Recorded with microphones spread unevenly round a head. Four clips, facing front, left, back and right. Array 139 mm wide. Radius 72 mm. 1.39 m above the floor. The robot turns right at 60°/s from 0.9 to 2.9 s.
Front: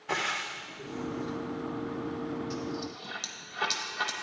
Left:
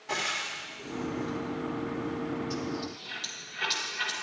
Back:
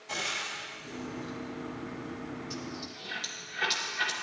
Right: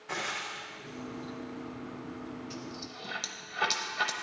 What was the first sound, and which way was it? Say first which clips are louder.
Frying: left 3 dB, front 4 dB; 20° left.